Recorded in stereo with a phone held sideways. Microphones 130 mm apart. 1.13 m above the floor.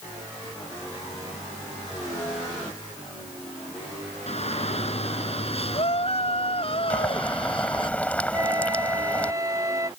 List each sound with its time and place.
4.3 s a shout: 55° left (ahead or behind); by 7.9 s 40° left (ahead or behind)
6.9 s boiling: 10° left (ahead or behind)
8.3 s a flute: 25° right (ahead or behind)